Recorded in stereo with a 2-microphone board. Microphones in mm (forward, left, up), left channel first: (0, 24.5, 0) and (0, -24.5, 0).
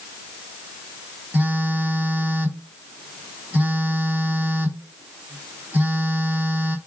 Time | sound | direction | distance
1.3 | a phone buzzing | 35° right (ahead or behind) | 0.8 m